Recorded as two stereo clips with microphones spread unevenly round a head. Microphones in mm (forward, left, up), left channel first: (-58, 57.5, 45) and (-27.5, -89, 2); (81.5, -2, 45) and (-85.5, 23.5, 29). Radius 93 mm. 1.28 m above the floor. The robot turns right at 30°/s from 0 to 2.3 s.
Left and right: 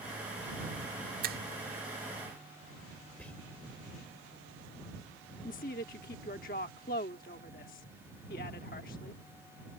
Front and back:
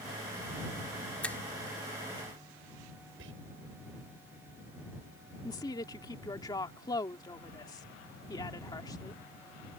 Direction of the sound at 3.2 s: Straight behind.